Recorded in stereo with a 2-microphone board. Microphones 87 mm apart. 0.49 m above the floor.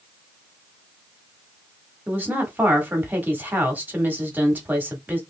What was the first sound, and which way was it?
A woman speaking, 20° right (ahead or behind).